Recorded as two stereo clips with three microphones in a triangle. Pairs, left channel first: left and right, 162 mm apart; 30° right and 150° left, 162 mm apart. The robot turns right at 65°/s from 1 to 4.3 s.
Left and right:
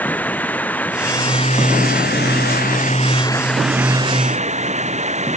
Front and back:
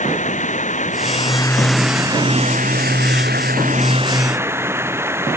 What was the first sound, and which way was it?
Running water, 10° left.